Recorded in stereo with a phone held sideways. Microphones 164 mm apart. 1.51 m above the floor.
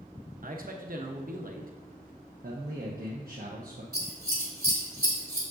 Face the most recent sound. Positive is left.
turn(degrees=-75)  # may be behind; listen again after turning